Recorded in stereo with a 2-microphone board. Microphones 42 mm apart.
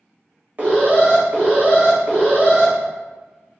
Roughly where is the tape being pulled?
I don't hear tape being pulled.